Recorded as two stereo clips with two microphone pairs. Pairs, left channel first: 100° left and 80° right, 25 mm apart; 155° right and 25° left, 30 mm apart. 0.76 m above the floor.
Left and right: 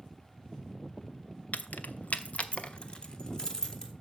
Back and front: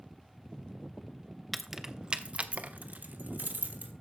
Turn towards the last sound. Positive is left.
turn(degrees=30)